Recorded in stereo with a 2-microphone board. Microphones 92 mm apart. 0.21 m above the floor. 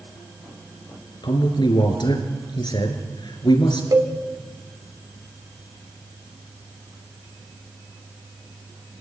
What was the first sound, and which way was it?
A man speaking, 55° left (ahead or behind).